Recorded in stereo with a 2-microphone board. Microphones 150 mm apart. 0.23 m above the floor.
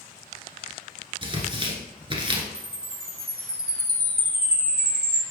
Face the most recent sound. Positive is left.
turn(degrees=-80)